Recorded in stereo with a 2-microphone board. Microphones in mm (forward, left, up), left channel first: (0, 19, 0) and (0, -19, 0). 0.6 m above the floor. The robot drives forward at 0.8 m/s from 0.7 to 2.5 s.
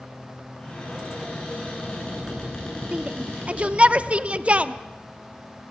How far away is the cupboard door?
About 8 m.